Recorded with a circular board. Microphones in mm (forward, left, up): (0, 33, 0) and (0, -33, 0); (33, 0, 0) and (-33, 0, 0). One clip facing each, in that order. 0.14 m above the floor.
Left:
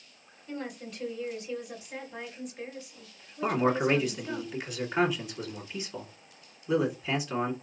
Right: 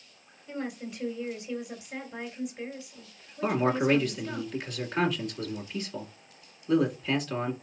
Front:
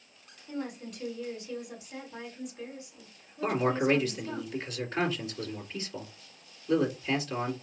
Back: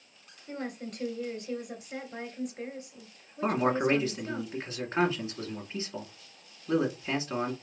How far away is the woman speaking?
About 2.5 m.